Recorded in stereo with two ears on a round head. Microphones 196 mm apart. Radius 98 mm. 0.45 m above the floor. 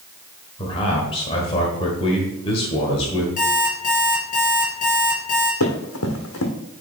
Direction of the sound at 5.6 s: 75° left (ahead or behind).